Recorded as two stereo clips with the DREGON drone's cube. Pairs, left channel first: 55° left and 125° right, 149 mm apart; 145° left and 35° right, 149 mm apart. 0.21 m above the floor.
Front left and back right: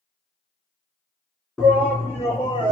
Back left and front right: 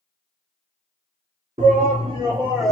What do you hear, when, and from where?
1.6 s a shout: 30° right, 1.9 m; by 2.7 s 65° left, 1.4 m